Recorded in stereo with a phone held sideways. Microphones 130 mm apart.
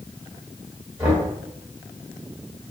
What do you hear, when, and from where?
1.0 s knocking: 15° right (ahead or behind), 2 m